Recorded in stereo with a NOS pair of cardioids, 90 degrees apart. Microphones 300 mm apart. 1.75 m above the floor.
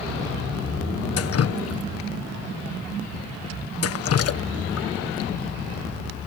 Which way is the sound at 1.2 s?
50° left.